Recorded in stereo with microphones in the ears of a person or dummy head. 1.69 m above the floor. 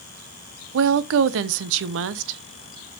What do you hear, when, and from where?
0.7 s a woman speaking: 75° right (ahead or behind), 0.9 m